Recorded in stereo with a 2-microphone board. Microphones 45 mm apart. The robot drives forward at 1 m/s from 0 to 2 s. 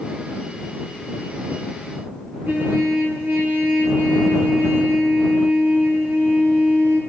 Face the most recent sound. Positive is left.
turn(degrees=-55)  # may be behind; listen again after turning